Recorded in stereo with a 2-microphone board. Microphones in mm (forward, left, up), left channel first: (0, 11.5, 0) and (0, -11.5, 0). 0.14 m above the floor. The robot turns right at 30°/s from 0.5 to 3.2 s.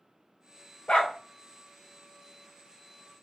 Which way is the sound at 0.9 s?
45° left (ahead or behind).